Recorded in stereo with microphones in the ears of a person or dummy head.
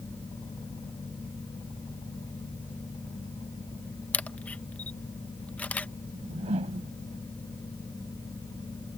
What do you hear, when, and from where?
4.1 s a camera shutter: 10° left (ahead or behind)
6.1 s a whoosh: 35° right (ahead or behind)